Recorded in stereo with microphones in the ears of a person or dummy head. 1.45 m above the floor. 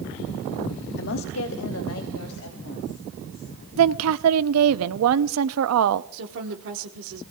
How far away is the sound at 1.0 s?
About 0.6 m.